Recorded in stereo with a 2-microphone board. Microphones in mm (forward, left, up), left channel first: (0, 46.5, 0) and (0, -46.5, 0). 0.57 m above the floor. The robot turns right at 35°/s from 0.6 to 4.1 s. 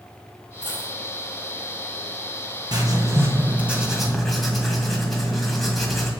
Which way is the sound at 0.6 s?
55° left (ahead or behind).